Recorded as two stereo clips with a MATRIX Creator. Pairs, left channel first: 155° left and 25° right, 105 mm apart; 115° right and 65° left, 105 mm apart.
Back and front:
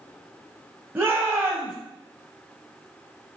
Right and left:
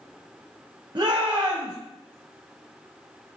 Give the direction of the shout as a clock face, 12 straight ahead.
11 o'clock.